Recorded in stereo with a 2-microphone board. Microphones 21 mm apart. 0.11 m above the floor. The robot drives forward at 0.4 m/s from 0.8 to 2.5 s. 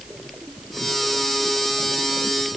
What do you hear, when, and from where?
Only background noise.